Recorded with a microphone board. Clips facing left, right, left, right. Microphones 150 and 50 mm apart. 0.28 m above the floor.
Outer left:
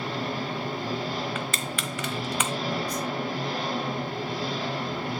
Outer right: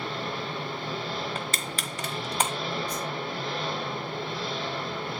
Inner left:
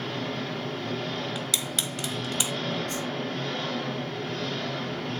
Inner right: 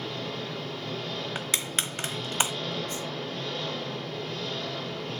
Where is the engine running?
45° left (ahead or behind), 3 m.